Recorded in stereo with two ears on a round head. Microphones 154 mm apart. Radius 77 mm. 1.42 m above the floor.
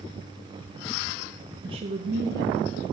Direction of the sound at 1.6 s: 25° right (ahead or behind).